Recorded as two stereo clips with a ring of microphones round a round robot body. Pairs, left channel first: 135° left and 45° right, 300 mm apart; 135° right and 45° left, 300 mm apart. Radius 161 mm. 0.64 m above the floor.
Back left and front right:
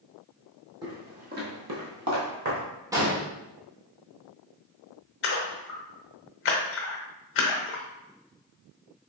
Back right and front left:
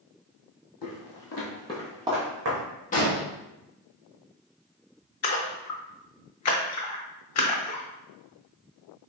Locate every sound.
0.8 s footsteps: 120° right, 1.4 m; by 2.6 s straight ahead, 1.3 m
2.9 s an explosion: 110° right, 1.2 m
5.2 s a splash: 175° right, 0.7 m